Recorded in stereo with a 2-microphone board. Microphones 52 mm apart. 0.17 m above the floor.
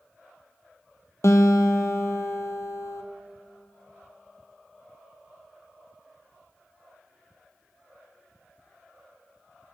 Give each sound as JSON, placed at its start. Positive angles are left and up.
{"t": 1.2, "sound": "a guitar", "side_deg": 70, "distance_m": 0.9}